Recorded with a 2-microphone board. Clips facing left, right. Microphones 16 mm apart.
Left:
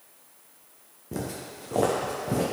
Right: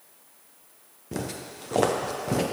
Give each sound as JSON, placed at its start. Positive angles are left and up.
{"t": 1.1, "sound": "footsteps", "side_deg": -30, "distance_m": 1.3}